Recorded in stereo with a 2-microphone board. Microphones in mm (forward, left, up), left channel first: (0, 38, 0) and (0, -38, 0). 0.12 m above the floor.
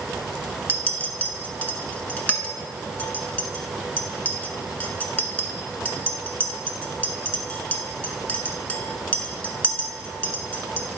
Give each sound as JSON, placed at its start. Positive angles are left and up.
{"t": 0.7, "sound": "a clink", "side_deg": 20, "distance_m": 0.8}